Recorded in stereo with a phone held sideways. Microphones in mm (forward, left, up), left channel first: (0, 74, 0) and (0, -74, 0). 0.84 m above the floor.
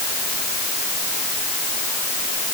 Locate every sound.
Only background noise.